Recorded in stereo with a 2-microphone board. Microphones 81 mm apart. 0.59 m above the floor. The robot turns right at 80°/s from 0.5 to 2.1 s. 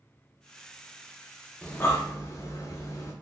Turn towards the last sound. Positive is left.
turn(degrees=40)  # may be behind; listen again after turning